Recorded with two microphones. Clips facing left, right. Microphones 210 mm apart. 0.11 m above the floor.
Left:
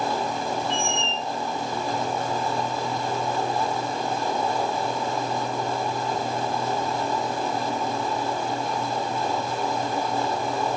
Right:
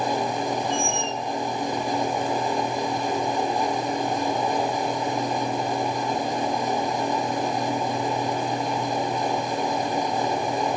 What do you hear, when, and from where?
0.7 s a squeak: 50° right (ahead or behind), 1.1 m